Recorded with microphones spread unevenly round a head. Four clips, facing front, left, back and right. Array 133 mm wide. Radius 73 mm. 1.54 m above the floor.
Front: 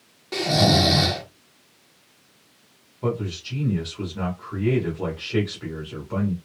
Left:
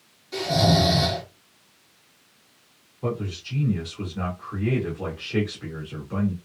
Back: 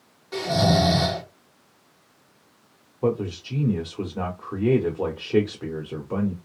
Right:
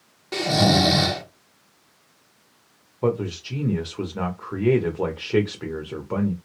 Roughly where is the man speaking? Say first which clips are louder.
Right 6 dB, back 3 dB; behind right.